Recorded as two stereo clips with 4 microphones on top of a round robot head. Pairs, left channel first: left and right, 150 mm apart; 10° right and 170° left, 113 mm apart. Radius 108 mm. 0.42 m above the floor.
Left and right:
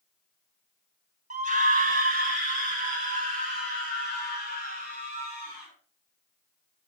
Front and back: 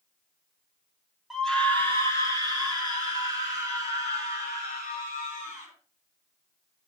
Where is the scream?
100° right, 2 m; by 5.7 s 45° right, 8 m.